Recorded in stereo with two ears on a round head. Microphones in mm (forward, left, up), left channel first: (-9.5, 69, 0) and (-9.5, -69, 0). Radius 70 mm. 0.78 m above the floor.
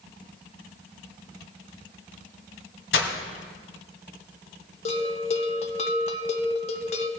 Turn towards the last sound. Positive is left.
turn(degrees=45)  # may be behind; listen again after turning